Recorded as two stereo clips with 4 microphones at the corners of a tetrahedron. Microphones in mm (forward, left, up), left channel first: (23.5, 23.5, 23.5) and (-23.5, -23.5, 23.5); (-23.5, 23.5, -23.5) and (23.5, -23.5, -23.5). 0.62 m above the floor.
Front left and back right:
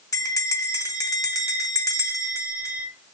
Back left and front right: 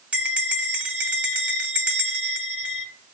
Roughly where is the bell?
Ahead left.